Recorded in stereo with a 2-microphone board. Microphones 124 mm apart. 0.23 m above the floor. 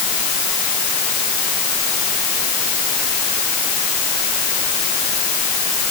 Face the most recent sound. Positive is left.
No sound to turn to.